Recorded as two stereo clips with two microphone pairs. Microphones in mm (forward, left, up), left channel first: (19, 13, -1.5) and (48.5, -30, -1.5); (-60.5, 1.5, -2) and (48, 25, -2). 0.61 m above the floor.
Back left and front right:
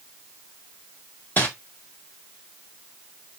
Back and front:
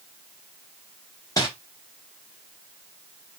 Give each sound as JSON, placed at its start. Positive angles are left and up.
{"t": 1.4, "sound": "crumpling", "azimuth_deg": 155, "distance_m": 1.5}